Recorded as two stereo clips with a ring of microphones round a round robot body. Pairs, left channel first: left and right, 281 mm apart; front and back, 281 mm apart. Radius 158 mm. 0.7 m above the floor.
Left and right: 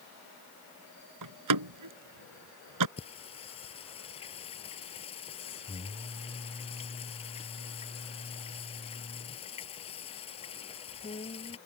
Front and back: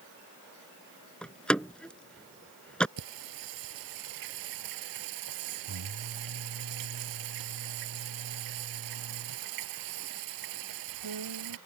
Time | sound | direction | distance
1.2 | a door slam | 85° right | ?
3.0 | singing | 160° left | ?